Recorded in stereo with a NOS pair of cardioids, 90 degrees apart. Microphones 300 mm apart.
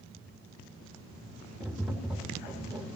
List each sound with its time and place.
1.6 s tapping: 5° right, 3 m